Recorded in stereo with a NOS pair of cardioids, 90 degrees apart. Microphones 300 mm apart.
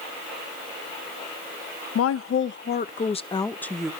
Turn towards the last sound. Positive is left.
turn(degrees=0)